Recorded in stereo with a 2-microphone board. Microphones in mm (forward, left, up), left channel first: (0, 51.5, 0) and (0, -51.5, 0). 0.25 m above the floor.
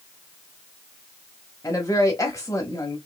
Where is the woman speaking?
30° left (ahead or behind), 1.1 m.